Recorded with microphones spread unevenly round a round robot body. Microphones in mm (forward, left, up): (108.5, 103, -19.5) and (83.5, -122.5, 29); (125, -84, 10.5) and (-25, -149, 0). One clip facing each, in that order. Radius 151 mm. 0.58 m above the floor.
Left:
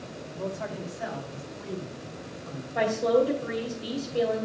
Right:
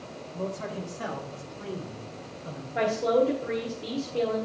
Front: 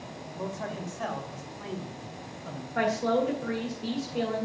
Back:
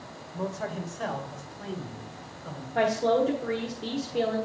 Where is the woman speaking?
155° left, 1.2 m.